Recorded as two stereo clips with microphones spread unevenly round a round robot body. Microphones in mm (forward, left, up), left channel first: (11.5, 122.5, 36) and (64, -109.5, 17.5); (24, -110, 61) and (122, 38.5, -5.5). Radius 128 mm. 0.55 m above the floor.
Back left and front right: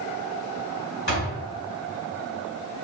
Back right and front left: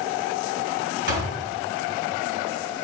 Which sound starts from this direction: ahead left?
A door slam, at 1.1 s.